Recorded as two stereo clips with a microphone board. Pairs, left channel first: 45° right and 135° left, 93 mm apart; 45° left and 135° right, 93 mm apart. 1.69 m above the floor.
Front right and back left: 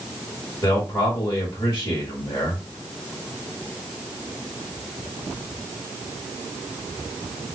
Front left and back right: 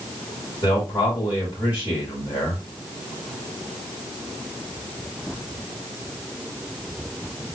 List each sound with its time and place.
0.6 s a man speaking: 5° right, 1.6 m